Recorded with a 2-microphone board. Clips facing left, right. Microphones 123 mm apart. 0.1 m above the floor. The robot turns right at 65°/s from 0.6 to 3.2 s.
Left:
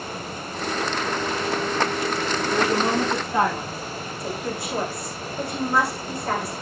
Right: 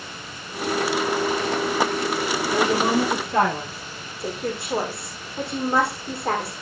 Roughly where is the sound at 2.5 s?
Behind right.